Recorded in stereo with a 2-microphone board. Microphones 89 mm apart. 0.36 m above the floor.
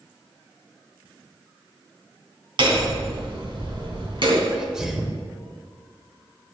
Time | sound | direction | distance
2.6 | hammering | 60° right (ahead or behind) | 3 m
4.5 | a sneeze | 5° right (ahead or behind) | 0.9 m